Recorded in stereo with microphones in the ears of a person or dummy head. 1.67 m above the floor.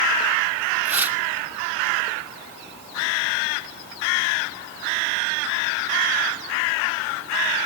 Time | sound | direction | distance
0.8 | tearing paper | 10° right (ahead or behind) | 2.5 m